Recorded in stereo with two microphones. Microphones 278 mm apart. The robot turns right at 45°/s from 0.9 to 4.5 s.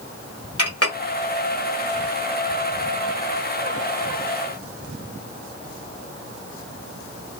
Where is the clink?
60° left (ahead or behind), 1.5 m.